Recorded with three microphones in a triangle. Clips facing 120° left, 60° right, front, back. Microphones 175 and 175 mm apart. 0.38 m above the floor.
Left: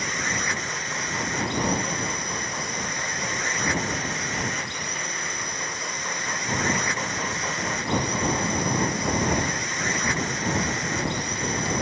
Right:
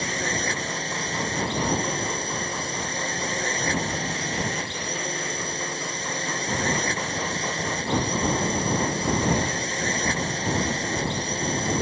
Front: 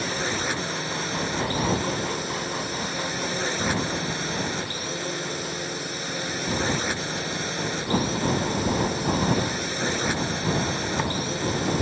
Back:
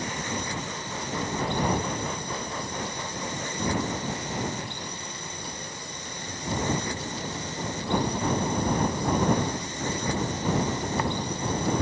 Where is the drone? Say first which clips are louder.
Right 3 dB, front 4 dB; straight ahead.